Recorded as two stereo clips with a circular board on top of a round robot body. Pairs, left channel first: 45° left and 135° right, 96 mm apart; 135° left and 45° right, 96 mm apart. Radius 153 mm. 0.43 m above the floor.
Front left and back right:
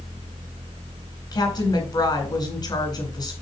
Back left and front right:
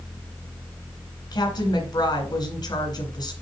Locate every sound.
1.3 s a woman speaking: 90° left, 4 m